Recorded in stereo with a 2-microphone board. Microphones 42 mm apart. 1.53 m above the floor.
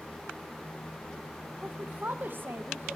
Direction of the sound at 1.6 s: 35° right (ahead or behind).